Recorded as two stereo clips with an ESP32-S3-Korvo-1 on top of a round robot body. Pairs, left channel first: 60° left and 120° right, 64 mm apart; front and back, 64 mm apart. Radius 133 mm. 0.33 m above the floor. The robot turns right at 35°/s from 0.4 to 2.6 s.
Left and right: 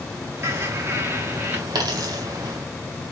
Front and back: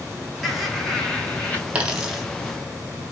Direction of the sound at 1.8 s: 110° right.